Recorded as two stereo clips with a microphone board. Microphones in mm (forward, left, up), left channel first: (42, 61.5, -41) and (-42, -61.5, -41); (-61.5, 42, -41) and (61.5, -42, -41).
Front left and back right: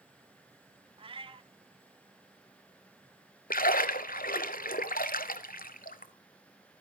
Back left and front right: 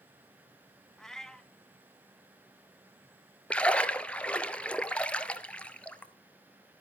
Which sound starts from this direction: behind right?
A cat meowing, at 1.0 s.